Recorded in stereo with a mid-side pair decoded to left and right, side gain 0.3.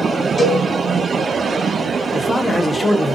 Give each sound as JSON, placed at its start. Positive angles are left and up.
{"t": 0.4, "sound": "a cowbell", "azimuth_deg": 45, "distance_m": 1.7}
{"t": 2.1, "sound": "a man speaking", "azimuth_deg": 45, "distance_m": 0.5}